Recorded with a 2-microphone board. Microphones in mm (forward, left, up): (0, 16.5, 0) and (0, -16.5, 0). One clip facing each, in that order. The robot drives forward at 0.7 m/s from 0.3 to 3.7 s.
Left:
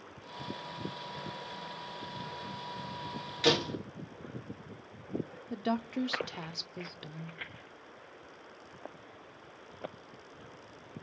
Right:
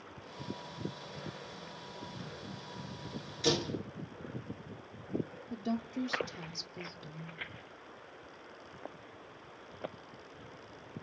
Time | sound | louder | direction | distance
3.4 | a door slam | left 4 dB | 50° left (ahead or behind) | 1.6 m
5.5 | a woman speaking | left 4 dB | 50° left (ahead or behind) | 0.5 m